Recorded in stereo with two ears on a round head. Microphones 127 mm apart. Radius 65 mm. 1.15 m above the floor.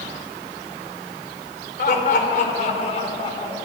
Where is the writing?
I don't hear writing.